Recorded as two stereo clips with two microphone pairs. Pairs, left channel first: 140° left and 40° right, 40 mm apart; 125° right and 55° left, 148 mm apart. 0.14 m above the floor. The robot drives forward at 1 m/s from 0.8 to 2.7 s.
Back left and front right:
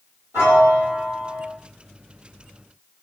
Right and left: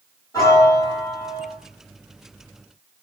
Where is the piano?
55° right, 1.3 m; by 1.5 s 90° right, 1.1 m.